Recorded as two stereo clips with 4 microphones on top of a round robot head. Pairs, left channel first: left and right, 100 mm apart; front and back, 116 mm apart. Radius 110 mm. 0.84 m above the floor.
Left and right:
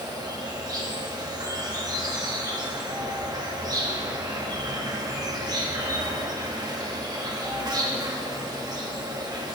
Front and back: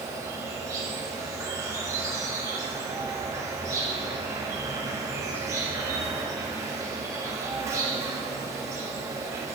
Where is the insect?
125° right, 1.3 m.